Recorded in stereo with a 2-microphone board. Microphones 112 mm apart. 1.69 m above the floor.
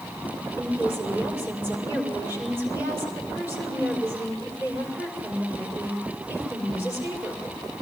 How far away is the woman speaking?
About 5.5 m.